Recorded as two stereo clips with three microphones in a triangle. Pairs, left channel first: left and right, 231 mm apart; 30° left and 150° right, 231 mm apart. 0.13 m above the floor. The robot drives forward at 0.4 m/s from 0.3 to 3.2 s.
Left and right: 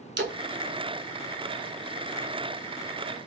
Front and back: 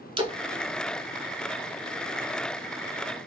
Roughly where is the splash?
Right.